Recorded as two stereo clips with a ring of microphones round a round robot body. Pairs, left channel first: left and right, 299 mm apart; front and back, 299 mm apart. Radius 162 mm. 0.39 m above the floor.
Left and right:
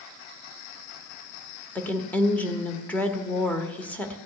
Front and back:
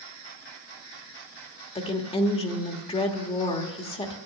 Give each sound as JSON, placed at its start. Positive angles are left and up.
{"t": 1.8, "sound": "a woman speaking", "azimuth_deg": 15, "distance_m": 1.4}